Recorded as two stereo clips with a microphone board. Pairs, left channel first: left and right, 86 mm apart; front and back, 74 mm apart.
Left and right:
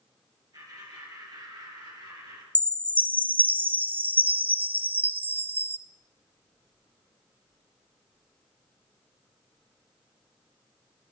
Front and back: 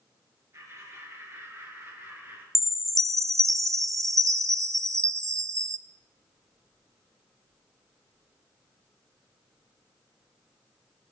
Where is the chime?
150° right, 0.5 m.